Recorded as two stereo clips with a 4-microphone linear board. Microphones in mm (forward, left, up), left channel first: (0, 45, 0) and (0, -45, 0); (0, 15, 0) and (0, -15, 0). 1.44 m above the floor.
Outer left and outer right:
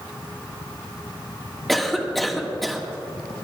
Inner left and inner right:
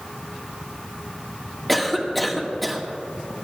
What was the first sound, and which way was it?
A cough, 5° left (ahead or behind).